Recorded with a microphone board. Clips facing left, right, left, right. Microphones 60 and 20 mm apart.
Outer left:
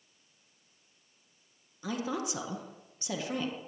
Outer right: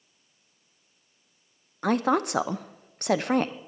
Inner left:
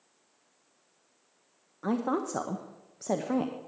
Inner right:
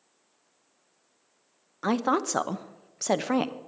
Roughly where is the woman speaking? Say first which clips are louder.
Outer right 11 dB, inner right 4 dB; right.